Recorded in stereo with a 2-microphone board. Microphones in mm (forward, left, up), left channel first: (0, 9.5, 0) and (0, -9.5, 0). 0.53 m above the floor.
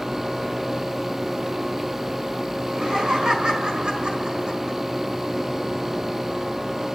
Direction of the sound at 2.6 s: 50° right (ahead or behind).